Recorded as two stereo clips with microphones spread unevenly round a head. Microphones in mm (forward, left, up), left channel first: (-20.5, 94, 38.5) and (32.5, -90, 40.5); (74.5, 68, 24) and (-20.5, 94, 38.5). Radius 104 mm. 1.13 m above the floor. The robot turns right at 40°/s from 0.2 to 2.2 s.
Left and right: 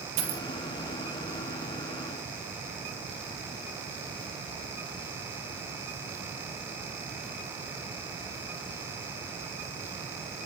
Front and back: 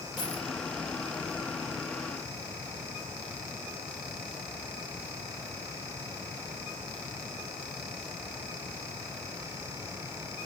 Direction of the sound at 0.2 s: 105° right.